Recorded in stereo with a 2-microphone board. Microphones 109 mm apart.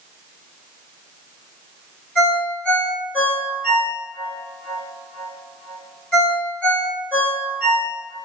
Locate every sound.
2.1 s a ringtone: 10° left (ahead or behind), 1.6 m